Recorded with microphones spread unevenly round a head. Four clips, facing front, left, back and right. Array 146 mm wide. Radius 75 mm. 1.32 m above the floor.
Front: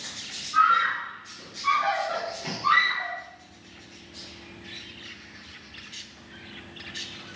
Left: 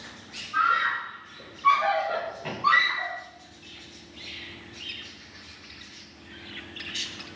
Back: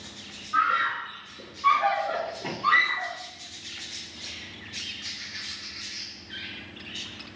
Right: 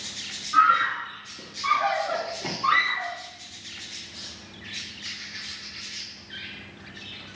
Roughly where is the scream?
Right.